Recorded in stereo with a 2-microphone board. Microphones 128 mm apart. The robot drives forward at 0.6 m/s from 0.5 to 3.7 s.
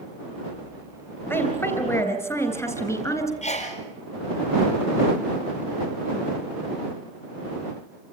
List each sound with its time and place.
1.3 s a woman speaking: 20° left (ahead or behind), 3.5 m; by 3.3 s 25° left (ahead or behind), 2.5 m
3.4 s a sneeze: 75° left (ahead or behind), 5 m